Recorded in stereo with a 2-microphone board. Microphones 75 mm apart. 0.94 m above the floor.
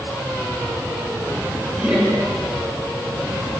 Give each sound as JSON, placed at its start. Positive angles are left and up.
{"t": 1.8, "sound": "laughter", "side_deg": -10, "distance_m": 9.0}